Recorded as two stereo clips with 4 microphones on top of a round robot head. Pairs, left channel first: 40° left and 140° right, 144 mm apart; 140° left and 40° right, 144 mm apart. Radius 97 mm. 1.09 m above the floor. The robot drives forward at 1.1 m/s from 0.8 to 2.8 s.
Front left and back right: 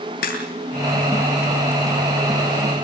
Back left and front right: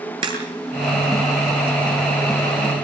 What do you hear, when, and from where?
0.2 s a crack: 15° left, 9 m